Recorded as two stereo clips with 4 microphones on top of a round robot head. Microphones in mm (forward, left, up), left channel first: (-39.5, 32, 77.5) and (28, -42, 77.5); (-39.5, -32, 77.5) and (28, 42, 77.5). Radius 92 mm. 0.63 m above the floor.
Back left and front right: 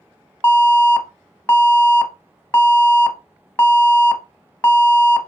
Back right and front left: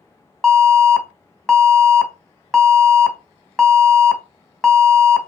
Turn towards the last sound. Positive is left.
turn(degrees=155)